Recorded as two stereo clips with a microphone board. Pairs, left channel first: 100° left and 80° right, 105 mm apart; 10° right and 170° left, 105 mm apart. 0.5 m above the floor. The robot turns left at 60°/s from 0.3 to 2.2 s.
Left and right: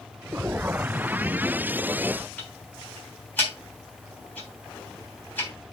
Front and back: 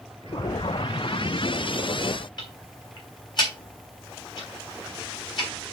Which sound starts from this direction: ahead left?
Ticking, at 2.4 s.